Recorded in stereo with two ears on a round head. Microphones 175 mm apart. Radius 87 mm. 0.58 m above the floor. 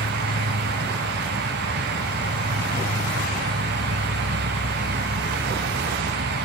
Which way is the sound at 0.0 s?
55° right (ahead or behind).